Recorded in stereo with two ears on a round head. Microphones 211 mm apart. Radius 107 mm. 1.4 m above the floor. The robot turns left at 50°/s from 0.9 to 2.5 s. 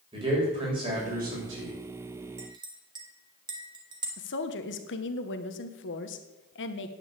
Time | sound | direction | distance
0.1 | a man speaking | 20° right | 6.5 m
2.4 | a clink | 15° right (ahead or behind) | 2.0 m
4.2 | a woman speaking | 50° left (ahead or behind) | 1.3 m